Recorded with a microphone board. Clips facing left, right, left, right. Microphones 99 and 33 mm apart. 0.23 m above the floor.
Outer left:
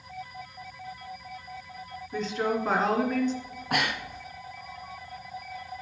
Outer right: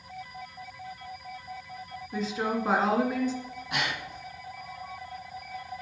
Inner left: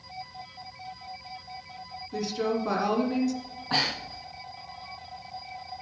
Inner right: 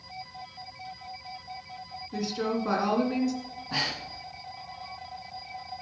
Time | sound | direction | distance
2.1 | a woman speaking | 5° right (ahead or behind) | 2 m
3.4 | breathing | 55° left (ahead or behind) | 1.5 m